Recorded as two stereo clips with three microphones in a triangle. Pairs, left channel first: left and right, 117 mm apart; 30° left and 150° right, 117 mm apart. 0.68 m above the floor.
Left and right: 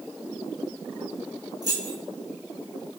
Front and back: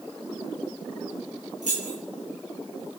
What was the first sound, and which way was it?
Keys jangling, 145° right.